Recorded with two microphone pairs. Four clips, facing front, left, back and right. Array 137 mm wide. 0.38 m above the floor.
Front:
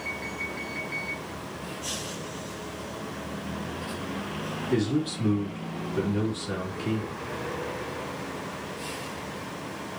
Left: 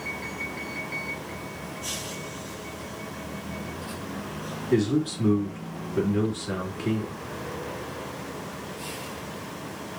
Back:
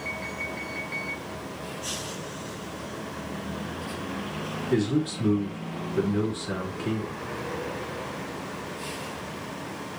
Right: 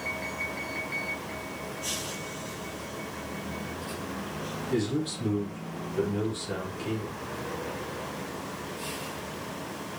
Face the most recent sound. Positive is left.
turn(degrees=85)